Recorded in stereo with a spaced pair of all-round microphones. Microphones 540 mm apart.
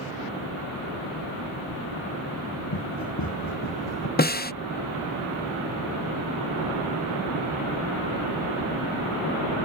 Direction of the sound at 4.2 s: 20° left (ahead or behind).